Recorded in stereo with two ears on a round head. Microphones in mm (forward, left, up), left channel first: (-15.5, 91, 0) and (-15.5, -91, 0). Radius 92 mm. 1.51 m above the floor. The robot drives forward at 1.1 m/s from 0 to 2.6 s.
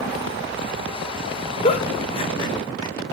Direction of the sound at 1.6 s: 30° left (ahead or behind).